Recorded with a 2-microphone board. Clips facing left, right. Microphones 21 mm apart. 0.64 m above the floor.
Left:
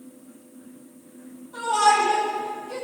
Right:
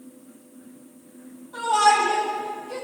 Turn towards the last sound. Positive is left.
turn(degrees=-20)  # may be behind; listen again after turning